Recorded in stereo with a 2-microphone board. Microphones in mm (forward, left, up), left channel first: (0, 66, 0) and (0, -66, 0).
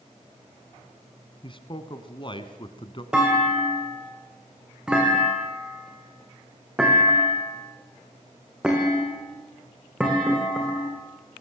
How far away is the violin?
No violin in this recording.